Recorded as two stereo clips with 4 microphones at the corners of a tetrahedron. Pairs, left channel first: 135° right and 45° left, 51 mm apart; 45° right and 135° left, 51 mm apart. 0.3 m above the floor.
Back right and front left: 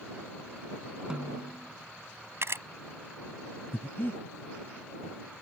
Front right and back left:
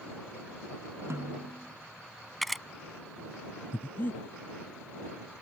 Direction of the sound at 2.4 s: 40° left.